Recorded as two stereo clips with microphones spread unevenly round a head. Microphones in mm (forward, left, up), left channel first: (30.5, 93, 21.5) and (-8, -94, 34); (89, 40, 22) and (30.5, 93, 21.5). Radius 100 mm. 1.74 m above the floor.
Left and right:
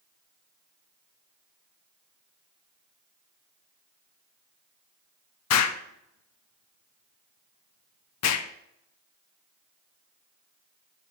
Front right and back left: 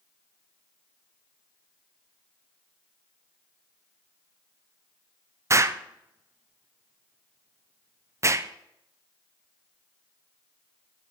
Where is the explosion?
80° left, 0.5 m.